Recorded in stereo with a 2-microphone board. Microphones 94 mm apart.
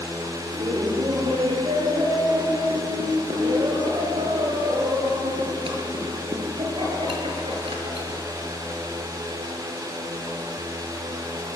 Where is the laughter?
75° right (ahead or behind), 6 m.